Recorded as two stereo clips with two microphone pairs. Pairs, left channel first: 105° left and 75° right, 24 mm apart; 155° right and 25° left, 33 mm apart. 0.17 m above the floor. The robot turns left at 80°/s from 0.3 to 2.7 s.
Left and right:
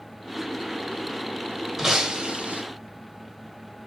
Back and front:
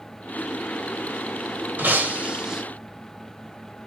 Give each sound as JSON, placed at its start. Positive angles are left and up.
{"t": 1.8, "sound": "breaking glass", "azimuth_deg": 5, "distance_m": 4.5}